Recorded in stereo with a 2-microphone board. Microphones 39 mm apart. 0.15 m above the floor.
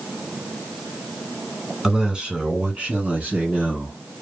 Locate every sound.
1.8 s a man speaking: 20° right (ahead or behind), 1.4 m; by 4.0 s 40° right (ahead or behind), 1.9 m